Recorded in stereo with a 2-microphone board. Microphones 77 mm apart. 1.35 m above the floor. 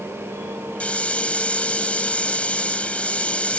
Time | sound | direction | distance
0.8 | a hiss | 15° left (ahead or behind) | ?